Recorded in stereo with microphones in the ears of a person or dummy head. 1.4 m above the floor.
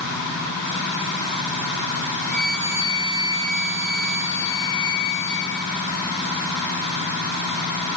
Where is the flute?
30° right (ahead or behind), 1.0 m.